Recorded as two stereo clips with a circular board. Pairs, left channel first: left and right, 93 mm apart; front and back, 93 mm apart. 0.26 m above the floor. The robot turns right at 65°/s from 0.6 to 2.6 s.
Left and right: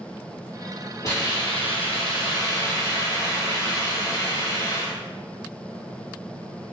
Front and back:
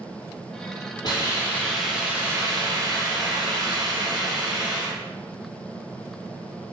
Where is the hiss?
35° left, 1.4 m; by 5.0 s 140° left, 1.4 m.